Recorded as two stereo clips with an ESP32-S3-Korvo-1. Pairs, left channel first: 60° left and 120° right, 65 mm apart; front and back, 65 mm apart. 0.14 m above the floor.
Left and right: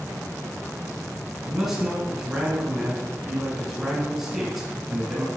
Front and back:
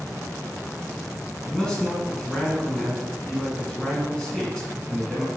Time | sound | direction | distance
1.4 | a man speaking | 55° right | 1.6 m